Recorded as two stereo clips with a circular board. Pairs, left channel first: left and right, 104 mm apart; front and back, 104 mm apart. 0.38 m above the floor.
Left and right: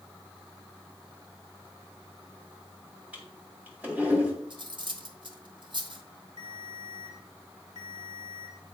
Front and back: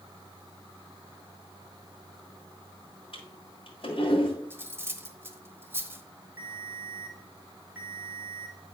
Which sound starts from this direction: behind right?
Cutlery clinking, at 4.5 s.